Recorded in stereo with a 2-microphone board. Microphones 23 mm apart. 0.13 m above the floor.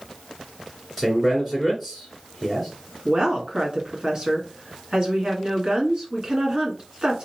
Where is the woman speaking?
35° right (ahead or behind), 1.5 m.